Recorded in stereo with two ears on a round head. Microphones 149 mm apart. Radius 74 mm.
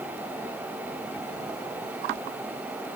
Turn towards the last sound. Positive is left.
No sound to turn to.